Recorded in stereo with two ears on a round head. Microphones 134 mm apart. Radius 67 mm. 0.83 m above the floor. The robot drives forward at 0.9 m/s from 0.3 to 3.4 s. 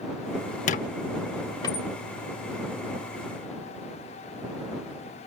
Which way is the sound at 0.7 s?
50° left (ahead or behind).